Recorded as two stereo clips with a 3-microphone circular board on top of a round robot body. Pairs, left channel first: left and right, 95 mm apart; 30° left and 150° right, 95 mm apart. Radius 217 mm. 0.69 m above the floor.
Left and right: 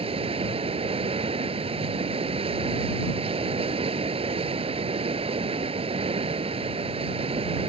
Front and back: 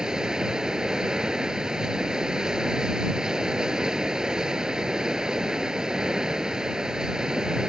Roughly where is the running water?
Ahead right.